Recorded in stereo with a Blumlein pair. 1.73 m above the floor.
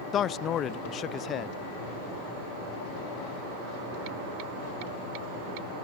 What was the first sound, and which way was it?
A man speaking, 25° left.